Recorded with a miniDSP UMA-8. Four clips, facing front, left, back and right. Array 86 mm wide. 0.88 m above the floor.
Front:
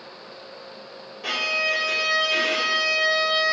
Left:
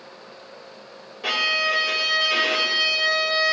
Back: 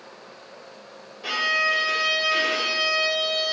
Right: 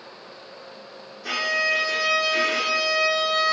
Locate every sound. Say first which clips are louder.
1.2 s a violin: left 1 dB, back 3 dB; 80° left, 1.9 m